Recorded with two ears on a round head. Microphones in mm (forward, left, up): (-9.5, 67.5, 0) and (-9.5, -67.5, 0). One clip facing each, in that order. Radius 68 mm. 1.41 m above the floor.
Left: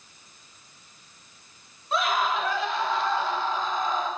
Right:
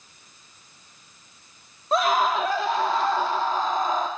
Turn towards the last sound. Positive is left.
turn(degrees=-40)  # may be behind; listen again after turning